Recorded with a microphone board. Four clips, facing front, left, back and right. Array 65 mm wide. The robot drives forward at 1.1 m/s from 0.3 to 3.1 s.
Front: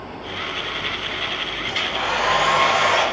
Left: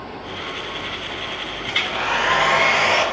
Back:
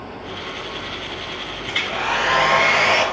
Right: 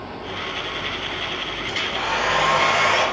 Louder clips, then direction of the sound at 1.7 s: Left 3 dB, back 2 dB; 120° left.